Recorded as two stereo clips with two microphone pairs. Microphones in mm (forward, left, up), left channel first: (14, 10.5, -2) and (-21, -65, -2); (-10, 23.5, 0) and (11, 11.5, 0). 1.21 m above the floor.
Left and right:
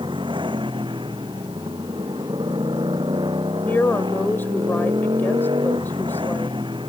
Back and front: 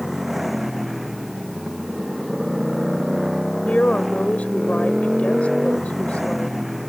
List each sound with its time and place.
0.0 s a motorcycle: 115° right
3.7 s a woman speaking: 130° left